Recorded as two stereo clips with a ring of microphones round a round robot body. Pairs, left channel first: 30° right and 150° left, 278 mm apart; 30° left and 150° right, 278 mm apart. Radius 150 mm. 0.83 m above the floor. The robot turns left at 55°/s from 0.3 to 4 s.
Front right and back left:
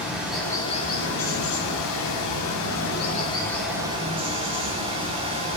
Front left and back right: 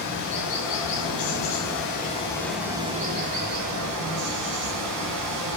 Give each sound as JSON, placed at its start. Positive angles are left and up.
{"t": 0.0, "sound": "running water", "azimuth_deg": 65, "distance_m": 5.5}